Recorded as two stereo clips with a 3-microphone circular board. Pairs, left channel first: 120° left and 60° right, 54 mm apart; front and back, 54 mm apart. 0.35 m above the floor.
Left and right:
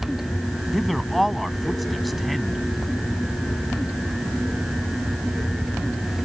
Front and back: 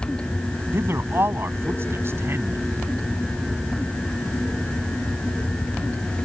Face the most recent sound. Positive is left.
turn(degrees=-150)